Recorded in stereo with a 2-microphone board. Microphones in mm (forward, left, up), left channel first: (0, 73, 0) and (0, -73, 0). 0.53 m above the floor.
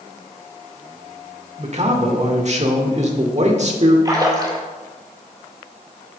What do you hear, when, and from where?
1.6 s a man speaking: 50° right (ahead or behind), 1.4 m
4.0 s a splash: 30° right (ahead or behind), 1.9 m